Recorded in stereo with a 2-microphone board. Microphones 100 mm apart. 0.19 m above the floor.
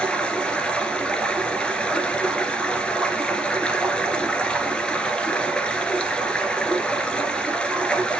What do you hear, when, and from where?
0.0 s running water: 10° left (ahead or behind), 1.6 m